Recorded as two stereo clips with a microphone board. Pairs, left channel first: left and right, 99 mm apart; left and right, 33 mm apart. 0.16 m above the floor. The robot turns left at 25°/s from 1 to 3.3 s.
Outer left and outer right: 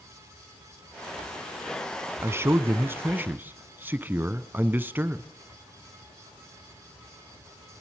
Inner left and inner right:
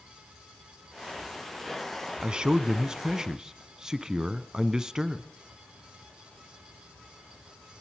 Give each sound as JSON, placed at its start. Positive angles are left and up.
{"t": 2.2, "sound": "a man speaking", "side_deg": -25, "distance_m": 1.1}